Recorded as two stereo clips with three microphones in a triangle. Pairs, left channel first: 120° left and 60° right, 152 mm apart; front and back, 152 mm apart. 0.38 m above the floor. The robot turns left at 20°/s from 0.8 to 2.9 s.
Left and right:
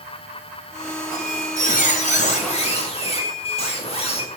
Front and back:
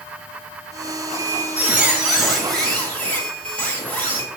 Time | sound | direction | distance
1.1 | a squeak | 115° left | 1.4 m